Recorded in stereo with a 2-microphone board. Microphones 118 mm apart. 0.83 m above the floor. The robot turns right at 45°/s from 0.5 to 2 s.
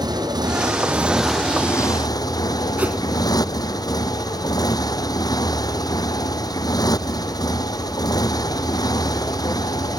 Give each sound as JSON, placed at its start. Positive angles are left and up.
{"t": 0.0, "sound": "a motorcycle", "azimuth_deg": -35}
{"t": 2.8, "sound": "a whoosh", "side_deg": -10}